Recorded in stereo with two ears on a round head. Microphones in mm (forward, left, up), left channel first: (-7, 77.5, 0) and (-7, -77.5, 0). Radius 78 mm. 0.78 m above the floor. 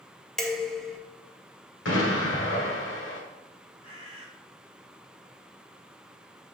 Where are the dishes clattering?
5° left (ahead or behind), 0.9 m.